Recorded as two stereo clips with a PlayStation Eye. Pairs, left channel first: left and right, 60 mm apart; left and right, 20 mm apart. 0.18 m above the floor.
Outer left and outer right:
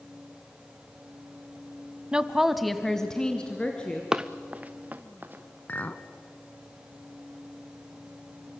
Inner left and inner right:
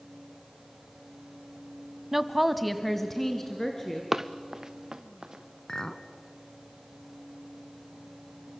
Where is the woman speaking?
15° right (ahead or behind), 1.0 m; by 4.0 s 20° left (ahead or behind), 2.5 m.